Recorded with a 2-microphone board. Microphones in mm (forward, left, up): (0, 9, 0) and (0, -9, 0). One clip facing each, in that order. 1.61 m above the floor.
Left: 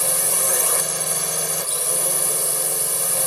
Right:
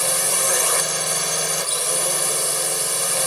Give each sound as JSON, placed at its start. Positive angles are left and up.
{"t": 0.0, "sound": "a drone", "side_deg": -15}